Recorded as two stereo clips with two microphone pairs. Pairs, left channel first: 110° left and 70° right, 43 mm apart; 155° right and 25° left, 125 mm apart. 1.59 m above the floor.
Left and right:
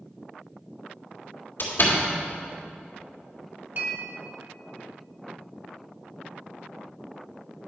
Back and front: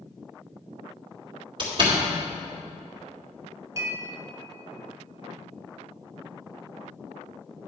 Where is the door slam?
75° left, 2 m.